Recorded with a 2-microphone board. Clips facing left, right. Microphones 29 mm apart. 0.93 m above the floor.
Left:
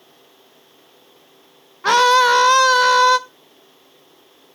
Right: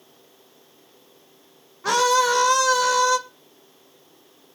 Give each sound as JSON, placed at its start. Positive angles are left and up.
{"t": 1.8, "sound": "a scream", "side_deg": 40, "distance_m": 0.7}